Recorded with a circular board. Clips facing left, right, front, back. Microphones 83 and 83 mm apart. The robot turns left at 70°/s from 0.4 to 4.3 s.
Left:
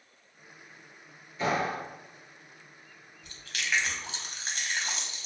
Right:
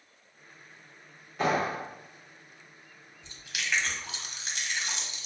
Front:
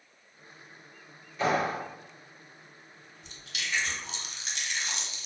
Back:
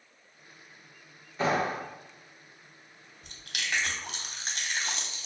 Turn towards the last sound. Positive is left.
turn(degrees=140)